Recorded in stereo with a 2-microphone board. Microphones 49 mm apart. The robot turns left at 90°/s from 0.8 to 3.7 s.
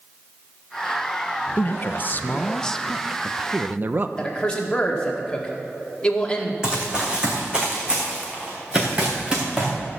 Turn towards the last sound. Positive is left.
turn(degrees=-25)  # may be behind; listen again after turning